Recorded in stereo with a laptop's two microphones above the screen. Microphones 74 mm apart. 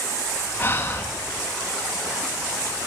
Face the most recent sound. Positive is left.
turn(degrees=35)  # may be behind; listen again after turning